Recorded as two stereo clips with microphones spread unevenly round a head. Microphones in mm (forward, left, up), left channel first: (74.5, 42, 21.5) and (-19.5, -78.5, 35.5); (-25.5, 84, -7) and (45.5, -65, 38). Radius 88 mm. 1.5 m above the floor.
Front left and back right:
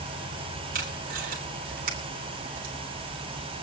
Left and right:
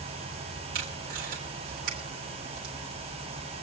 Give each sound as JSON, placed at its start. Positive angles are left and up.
{"t": 0.7, "sound": "tape being pulled", "azimuth_deg": -100, "distance_m": 3.5}